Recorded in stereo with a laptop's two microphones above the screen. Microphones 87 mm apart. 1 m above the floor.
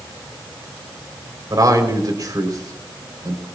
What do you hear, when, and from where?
1.5 s a man speaking: 50° right (ahead or behind), 4 m